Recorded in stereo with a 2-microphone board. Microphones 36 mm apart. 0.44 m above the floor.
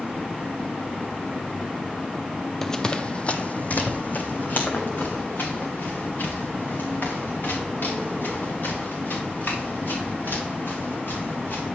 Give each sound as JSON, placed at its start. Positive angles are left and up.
{"t": 2.6, "sound": "running footsteps", "side_deg": 10, "distance_m": 0.8}